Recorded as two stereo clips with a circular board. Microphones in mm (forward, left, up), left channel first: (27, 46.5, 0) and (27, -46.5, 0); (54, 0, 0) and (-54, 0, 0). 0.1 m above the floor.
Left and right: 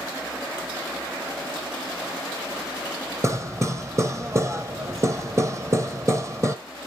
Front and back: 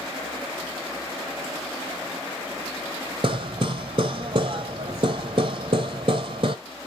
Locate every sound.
3.2 s hammering: 145° right, 1.1 m